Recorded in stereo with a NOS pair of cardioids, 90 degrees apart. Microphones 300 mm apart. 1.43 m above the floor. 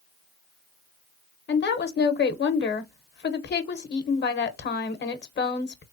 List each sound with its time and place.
1.5 s a woman speaking: 35° left, 0.8 m